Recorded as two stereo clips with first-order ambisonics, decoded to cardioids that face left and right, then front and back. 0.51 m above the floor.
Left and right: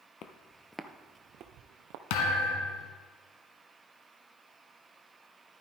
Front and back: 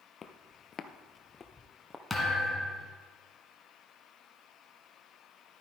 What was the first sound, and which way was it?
Footsteps, 60° left.